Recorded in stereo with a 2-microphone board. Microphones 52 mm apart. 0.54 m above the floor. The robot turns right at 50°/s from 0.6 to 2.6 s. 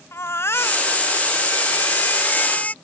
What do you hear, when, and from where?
0.1 s a baby crying: 55° left; by 2.7 s 155° left